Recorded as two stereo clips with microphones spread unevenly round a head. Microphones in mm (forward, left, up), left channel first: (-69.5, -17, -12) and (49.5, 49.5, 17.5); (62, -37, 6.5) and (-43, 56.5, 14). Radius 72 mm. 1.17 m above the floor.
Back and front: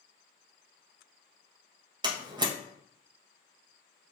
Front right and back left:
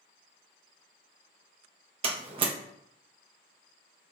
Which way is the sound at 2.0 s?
85° left.